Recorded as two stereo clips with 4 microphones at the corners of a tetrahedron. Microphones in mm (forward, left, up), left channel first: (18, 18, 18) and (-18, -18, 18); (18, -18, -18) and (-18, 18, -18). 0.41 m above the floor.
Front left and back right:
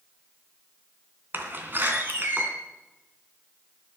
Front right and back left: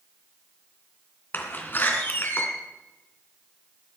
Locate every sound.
1.3 s a door slam: 90° right, 3 m